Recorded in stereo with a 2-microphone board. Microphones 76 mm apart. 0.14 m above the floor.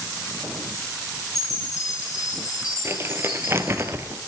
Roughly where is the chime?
Left.